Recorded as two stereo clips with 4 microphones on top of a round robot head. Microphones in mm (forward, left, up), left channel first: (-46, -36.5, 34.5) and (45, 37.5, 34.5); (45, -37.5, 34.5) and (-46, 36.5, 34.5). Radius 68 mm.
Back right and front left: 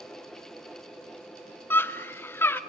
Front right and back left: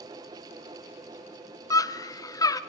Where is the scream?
80° right, 0.9 m.